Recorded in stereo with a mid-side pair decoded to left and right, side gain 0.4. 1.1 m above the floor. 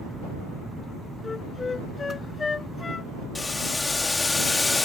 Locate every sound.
1.2 s a flute: 30° left
3.4 s boiling: 20° left